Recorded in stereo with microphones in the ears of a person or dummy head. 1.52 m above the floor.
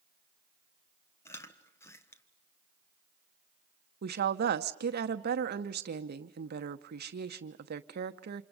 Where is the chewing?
10° left (ahead or behind), 1.4 m.